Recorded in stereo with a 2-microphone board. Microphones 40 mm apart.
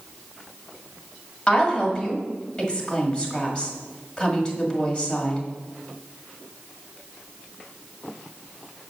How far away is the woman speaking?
About 1.6 m.